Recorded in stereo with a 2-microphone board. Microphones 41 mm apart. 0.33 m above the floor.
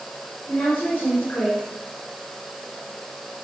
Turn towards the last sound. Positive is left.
turn(degrees=45)  # may be behind; listen again after turning